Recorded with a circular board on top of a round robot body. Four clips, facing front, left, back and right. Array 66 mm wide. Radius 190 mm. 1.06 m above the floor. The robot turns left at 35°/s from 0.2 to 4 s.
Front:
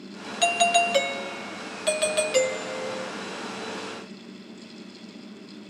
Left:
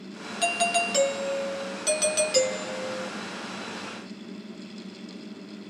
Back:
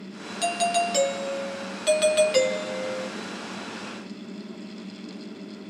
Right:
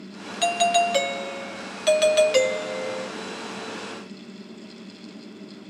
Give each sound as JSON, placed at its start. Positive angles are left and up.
{"t": 0.4, "sound": "a doorbell", "azimuth_deg": -25, "distance_m": 0.9}